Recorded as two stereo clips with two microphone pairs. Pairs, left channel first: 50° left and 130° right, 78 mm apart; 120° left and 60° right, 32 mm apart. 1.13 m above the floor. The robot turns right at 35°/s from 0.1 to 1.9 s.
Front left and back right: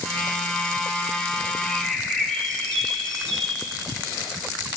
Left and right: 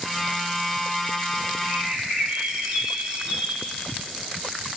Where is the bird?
35° right, 1.0 m; by 3.8 s 25° right, 1.0 m.